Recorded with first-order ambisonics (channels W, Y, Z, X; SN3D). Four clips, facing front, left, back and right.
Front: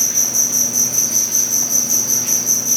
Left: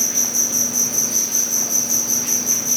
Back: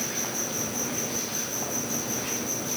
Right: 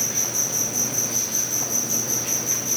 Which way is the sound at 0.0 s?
20° left.